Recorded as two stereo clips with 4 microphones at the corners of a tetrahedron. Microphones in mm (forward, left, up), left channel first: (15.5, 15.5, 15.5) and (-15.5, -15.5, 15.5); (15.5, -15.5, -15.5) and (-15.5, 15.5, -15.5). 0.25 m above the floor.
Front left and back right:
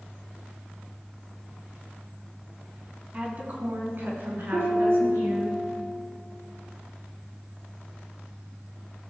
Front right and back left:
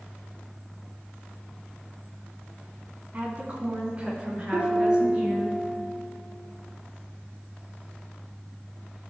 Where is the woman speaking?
170° left, 1.7 m; by 5.5 s 155° right, 4.5 m.